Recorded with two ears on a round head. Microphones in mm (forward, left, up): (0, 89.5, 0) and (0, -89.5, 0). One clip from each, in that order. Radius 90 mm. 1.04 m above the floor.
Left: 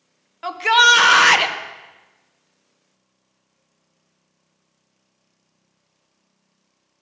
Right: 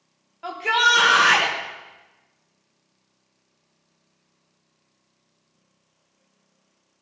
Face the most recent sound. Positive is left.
turn(degrees=50)  # may be behind; listen again after turning